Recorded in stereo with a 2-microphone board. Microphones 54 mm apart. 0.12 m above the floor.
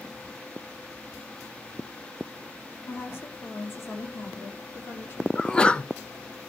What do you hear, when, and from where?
2.9 s a woman speaking: 40° left (ahead or behind), 3.5 m; by 5.2 s 55° left (ahead or behind), 5 m
5.3 s a sneeze: 20° left (ahead or behind), 1.1 m